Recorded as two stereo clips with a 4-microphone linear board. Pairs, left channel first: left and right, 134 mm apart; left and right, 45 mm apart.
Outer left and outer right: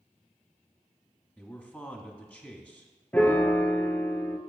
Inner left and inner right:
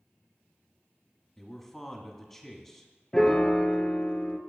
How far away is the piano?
About 0.7 m.